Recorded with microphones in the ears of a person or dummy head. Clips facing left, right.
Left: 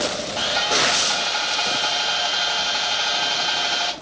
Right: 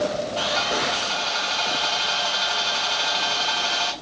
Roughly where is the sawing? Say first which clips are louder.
Left 1 dB; centre.